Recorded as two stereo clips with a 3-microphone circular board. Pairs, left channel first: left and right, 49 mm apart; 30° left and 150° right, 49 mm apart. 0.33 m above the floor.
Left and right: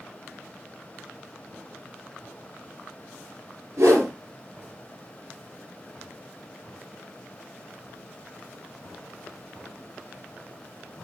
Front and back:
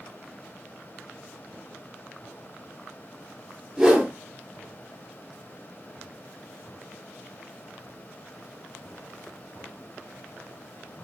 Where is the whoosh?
70° right, 4.5 m.